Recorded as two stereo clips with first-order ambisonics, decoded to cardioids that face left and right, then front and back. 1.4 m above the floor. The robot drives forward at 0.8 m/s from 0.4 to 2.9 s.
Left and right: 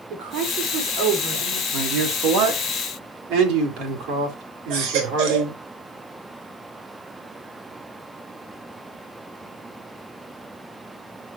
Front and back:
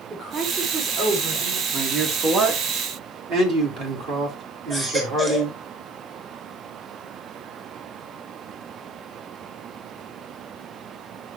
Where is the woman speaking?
110° right, 5 m; by 1.6 s 120° right, 5.5 m.